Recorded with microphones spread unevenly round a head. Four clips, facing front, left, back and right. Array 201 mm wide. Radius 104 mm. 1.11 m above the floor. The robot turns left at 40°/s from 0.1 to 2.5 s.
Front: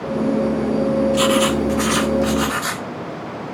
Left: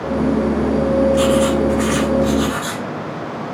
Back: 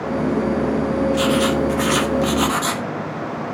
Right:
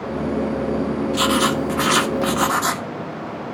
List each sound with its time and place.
1.1 s writing: 65° right, 0.9 m; by 2.8 s 120° right, 0.9 m